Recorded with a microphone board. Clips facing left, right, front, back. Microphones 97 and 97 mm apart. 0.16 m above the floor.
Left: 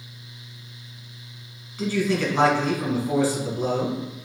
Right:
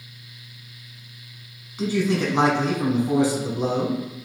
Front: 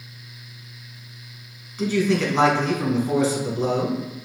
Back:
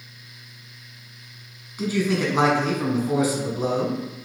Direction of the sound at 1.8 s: 120° right.